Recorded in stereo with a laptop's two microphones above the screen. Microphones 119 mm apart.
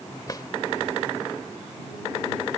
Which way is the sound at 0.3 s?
35° left (ahead or behind).